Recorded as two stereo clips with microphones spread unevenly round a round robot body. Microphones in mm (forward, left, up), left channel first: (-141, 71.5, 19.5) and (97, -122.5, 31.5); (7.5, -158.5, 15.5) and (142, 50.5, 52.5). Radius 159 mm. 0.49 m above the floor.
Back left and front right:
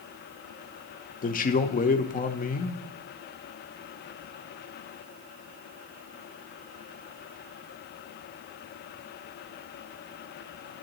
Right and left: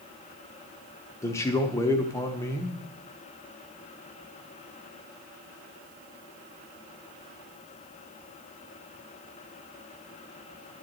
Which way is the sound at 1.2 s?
Straight behind.